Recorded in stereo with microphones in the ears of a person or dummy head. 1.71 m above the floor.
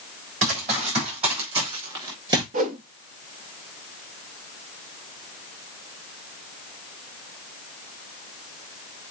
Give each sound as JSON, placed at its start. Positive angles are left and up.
{"t": 0.4, "sound": "running footsteps", "side_deg": -45, "distance_m": 5.0}
{"t": 2.5, "sound": "a whoosh", "side_deg": -45, "distance_m": 0.7}